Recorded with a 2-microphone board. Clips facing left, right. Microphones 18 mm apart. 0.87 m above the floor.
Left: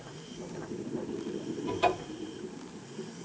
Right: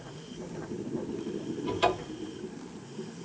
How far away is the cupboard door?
About 2 m.